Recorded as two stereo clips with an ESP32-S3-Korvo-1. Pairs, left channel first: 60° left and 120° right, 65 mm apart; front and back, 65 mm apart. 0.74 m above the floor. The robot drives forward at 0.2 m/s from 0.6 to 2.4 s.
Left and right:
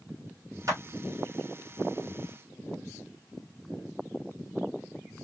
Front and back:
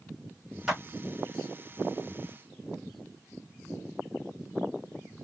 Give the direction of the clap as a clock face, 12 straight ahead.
3 o'clock.